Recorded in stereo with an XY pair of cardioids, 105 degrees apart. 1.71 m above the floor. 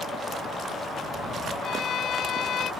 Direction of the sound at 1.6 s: 65° left.